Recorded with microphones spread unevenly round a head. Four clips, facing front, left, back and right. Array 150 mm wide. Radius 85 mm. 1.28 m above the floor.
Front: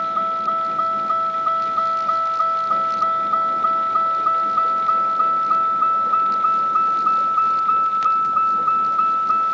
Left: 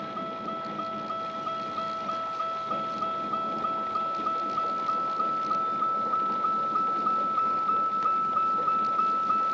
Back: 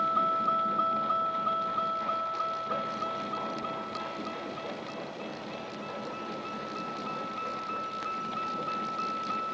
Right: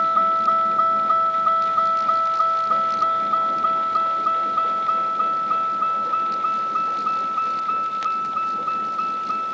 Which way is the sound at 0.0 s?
60° right.